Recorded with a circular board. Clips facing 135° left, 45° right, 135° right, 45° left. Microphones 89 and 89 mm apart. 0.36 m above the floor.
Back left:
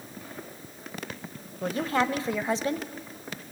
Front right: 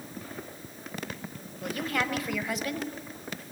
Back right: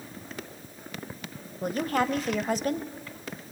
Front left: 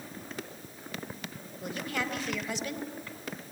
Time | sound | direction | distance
1.6 | a woman speaking | 170° right | 1.5 m